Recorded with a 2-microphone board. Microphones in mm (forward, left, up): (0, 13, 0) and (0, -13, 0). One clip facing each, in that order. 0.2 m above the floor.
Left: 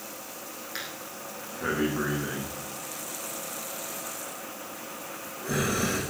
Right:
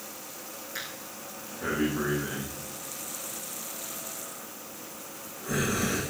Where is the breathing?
40° left (ahead or behind), 7 m.